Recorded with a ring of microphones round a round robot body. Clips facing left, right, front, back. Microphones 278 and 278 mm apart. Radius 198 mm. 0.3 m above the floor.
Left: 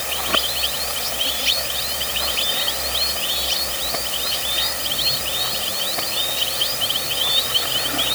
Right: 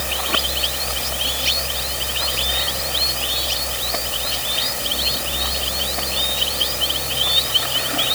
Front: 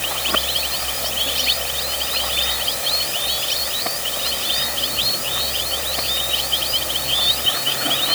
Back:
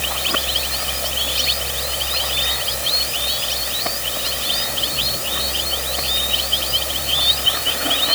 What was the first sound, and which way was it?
Only background noise.